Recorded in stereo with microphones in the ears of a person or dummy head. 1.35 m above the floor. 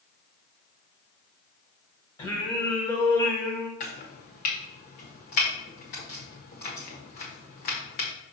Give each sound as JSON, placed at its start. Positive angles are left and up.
{"t": 2.2, "sound": "singing", "side_deg": 15, "distance_m": 1.2}
{"t": 3.8, "sound": "chopping", "side_deg": 30, "distance_m": 1.2}